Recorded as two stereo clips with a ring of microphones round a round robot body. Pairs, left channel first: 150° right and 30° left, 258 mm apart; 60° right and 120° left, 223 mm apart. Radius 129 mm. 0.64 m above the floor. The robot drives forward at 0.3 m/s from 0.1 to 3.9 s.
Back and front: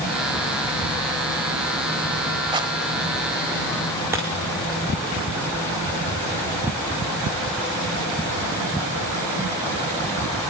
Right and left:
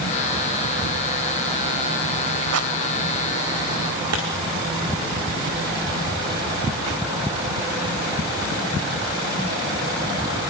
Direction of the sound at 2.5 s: 105° left.